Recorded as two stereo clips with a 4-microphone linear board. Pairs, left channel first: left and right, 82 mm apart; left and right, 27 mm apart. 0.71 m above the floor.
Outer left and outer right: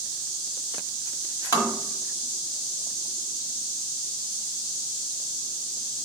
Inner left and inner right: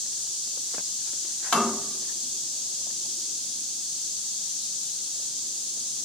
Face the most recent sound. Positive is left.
turn(degrees=40)  # may be behind; listen again after turning